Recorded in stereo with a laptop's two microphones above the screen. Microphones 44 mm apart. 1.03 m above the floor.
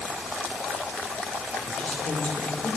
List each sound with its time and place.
1.7 s a woman speaking: 20° left (ahead or behind), 1.1 m; by 2.8 s 45° left (ahead or behind), 1.4 m